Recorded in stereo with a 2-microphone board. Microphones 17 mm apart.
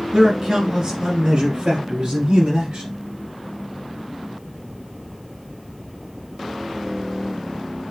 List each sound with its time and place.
0.1 s a man speaking: 10° right (ahead or behind), 2.0 m; by 3.0 s 45° right (ahead or behind), 2.5 m